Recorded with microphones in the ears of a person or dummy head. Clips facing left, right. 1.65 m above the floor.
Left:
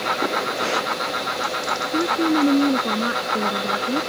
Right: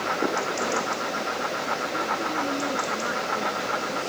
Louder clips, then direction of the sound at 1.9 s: Left 14 dB; 50° left (ahead or behind).